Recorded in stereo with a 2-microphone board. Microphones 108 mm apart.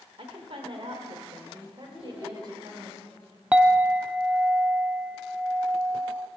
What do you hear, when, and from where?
0.2 s a woman speaking: 55° right (ahead or behind), 1.6 m; by 2.9 s 40° right (ahead or behind), 3 m
1.9 s a child speaking: 5° right (ahead or behind), 2.0 m
3.5 s a clink: 10° right (ahead or behind), 0.5 m